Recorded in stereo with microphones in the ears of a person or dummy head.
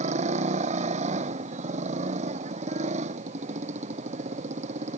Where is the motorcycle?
35° right (ahead or behind).